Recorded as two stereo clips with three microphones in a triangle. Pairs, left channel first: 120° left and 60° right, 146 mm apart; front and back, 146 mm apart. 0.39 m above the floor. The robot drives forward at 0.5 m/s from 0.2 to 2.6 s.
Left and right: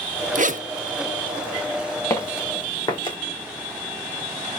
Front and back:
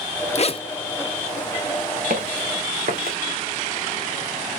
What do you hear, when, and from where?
0.3 s a zipper: 40° right, 0.6 m; by 0.6 s 50° right, 0.5 m
2.1 s footsteps: 175° right, 2.5 m; by 3.2 s 175° left, 1.8 m